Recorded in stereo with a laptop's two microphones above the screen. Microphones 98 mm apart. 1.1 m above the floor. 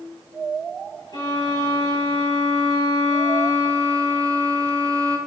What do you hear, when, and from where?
1.1 s a violin: 50° left (ahead or behind), 4.5 m